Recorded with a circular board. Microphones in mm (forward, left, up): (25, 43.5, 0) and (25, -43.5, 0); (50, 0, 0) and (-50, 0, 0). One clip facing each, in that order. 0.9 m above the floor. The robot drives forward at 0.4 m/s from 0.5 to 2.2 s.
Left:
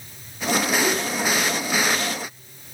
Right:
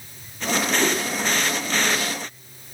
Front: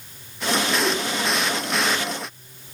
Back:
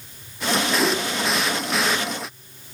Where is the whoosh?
150° right, 3 m.